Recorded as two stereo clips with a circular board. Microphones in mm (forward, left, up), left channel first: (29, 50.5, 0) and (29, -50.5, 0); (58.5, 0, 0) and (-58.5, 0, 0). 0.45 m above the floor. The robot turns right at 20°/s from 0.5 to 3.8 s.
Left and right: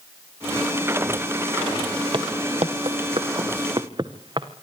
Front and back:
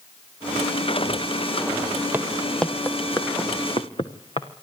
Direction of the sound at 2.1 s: 110° right.